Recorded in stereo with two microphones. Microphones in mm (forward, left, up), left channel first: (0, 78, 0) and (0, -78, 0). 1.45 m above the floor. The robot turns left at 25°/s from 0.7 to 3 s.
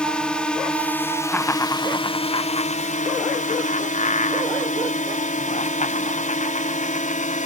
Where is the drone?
175° left; by 7.5 s 115° left.